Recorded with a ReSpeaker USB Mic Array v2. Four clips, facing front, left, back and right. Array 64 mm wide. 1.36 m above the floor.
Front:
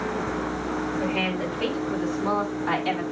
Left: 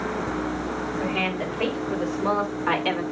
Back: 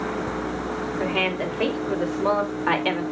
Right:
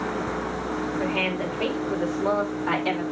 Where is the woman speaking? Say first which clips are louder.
Left 1 dB, back 2 dB; 170° left, 3.5 m; by 3.0 s 155° left, 2.5 m.